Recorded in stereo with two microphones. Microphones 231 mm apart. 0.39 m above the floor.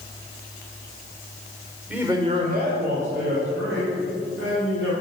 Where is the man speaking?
5° right (ahead or behind), 1.2 m; by 4.9 s 60° right (ahead or behind), 3.5 m.